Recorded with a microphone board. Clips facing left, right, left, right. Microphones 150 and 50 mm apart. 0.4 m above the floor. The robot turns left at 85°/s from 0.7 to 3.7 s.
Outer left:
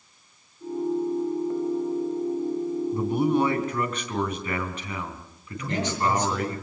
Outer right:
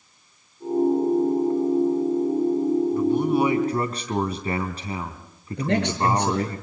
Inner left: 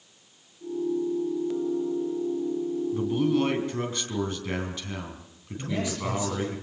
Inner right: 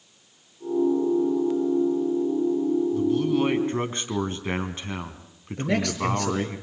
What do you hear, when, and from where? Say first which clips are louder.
2.9 s a man speaking: outer right 3 dB, inner right 2 dB; 30° left, 3 m; by 6.6 s 35° right, 3 m
5.6 s a man speaking: outer right 4 dB, inner right 5 dB; 70° right (ahead or behind), 7 m